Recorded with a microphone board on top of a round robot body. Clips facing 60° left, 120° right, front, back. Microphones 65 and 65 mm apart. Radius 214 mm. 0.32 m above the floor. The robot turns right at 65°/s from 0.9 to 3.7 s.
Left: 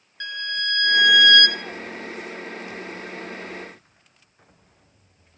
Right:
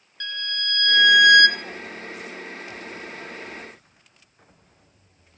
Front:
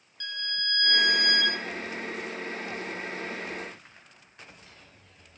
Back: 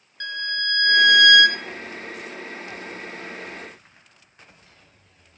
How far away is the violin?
About 0.6 m.